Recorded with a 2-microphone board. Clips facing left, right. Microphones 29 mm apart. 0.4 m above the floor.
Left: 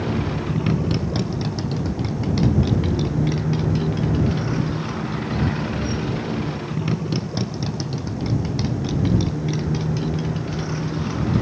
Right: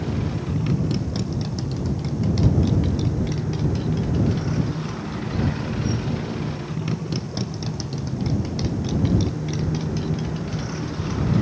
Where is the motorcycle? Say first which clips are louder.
Left 3 dB; 20° left (ahead or behind); by 11.4 s 5° left (ahead or behind).